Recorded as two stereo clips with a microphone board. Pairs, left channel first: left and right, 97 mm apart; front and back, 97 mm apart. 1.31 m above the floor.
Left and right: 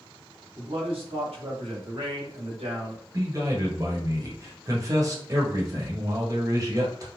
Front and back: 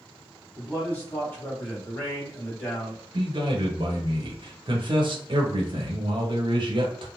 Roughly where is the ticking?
I don't hear ticking.